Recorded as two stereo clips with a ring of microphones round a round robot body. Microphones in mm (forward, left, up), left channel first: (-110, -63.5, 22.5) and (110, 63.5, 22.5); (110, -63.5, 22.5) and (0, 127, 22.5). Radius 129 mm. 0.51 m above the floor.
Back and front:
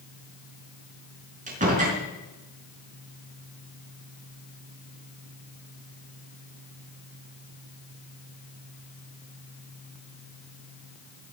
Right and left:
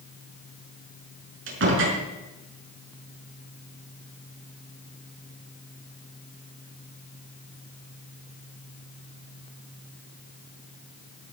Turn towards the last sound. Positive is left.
turn(degrees=90)